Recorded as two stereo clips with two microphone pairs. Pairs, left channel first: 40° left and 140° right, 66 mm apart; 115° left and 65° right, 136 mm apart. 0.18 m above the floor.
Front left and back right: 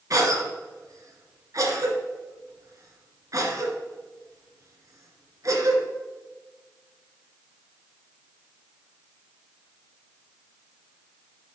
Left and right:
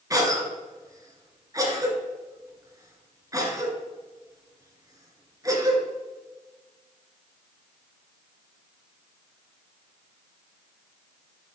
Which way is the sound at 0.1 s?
125° right.